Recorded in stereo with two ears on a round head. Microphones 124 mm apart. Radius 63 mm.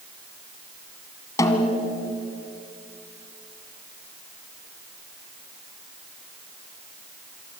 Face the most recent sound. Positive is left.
turn(degrees=25)  # may be behind; listen again after turning